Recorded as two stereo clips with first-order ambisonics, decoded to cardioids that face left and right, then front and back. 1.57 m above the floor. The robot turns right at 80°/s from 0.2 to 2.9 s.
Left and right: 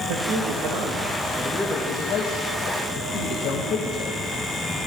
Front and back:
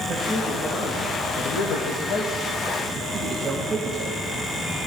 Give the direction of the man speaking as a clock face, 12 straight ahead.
4 o'clock.